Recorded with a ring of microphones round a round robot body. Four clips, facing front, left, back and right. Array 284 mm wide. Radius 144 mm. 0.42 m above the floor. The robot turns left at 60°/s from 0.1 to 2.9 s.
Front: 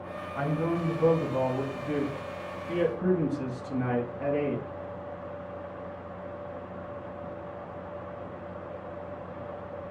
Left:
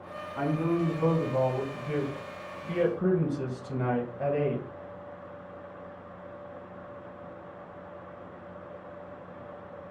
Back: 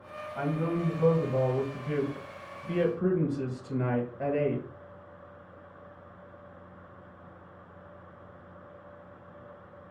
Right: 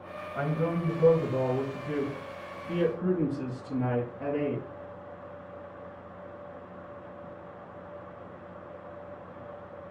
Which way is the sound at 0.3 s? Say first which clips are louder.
Left 2 dB, front 1 dB; 80° right.